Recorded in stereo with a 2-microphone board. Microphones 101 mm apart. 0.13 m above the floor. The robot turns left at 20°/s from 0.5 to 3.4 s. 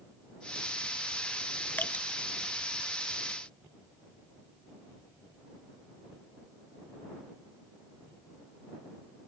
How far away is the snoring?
I don't hear snoring.